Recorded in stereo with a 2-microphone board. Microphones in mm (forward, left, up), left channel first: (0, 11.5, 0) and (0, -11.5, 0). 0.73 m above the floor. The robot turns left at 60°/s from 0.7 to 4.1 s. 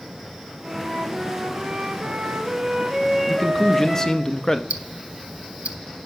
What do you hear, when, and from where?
0.6 s a flute: 25° right, 3.5 m; by 4.2 s 130° left, 3.5 m
3.3 s a man speaking: 10° left (ahead or behind), 0.6 m; by 4.6 s 20° left (ahead or behind), 0.6 m
4.7 s ticking: 75° right (ahead or behind), 0.6 m